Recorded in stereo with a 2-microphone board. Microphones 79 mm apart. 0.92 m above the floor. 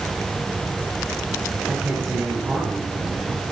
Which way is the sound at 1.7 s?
20° right (ahead or behind).